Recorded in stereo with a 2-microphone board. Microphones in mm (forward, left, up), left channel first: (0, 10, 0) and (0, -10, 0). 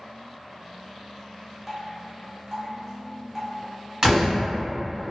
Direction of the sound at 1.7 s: 15° right (ahead or behind).